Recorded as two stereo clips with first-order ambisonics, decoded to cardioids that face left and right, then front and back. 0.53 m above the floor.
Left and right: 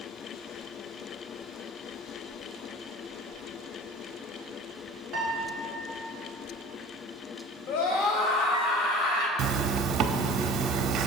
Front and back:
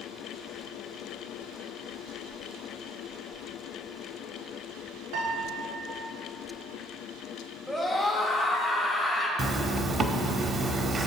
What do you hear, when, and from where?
5.1 s a piano: 170° right, 2.0 m
7.7 s a scream: 95° left, 2.5 m
9.4 s a zipper: 125° right, 0.7 m